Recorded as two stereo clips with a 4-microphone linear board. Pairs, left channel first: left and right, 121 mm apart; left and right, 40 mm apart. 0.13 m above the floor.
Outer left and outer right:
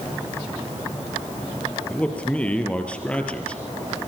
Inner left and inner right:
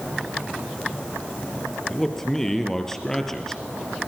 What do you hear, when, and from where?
1.9 s a man speaking: 10° left (ahead or behind), 3.5 m